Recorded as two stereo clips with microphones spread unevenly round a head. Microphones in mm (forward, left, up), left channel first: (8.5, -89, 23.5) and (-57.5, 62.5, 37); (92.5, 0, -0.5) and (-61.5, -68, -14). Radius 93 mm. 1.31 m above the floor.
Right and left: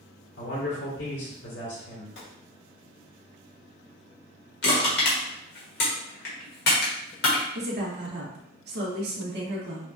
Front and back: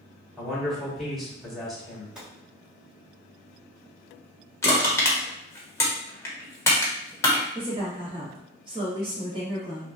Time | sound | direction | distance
0.4 | a man speaking | 65° right | 2 m
2.1 | a gunshot | 70° right | 2.0 m
4.6 | crushing | 40° right | 1.4 m
7.5 | a woman speaking | 140° left | 1.5 m